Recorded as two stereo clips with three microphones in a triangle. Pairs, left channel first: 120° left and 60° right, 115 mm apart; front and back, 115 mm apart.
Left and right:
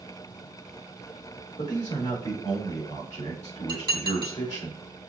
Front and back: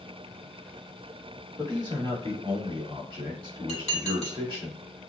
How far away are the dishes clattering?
About 1.6 m.